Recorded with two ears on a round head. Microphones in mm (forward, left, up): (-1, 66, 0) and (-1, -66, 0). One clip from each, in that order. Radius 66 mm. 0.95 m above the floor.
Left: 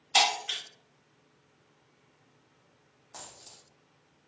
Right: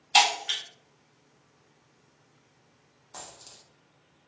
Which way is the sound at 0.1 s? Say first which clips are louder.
Right 3 dB; 10° right (ahead or behind).